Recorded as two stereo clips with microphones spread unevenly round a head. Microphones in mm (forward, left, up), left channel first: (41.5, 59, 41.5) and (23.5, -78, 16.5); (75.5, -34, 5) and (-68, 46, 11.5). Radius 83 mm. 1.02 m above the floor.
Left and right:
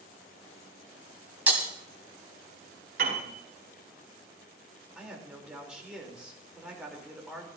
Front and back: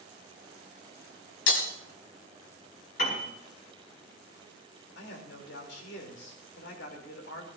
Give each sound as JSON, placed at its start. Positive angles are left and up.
{"t": 1.5, "sound": "breaking glass", "azimuth_deg": -15, "distance_m": 2.5}
{"t": 3.0, "sound": "a piano", "azimuth_deg": -75, "distance_m": 5.0}
{"t": 5.0, "sound": "a man speaking", "azimuth_deg": -15, "distance_m": 3.5}